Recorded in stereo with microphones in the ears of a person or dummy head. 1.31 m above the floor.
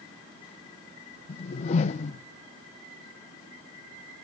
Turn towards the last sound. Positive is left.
turn(degrees=40)  # may be behind; listen again after turning